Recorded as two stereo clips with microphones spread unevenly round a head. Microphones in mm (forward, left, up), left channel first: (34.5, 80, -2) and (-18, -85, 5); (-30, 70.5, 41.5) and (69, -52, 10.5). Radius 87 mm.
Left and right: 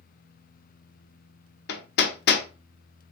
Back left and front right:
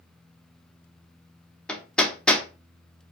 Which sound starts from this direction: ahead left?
Hammering, at 1.7 s.